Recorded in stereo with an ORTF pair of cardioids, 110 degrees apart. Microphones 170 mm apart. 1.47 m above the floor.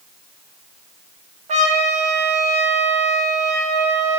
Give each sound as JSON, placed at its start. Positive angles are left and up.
{"t": 1.5, "sound": "a trumpet", "azimuth_deg": -45, "distance_m": 0.6}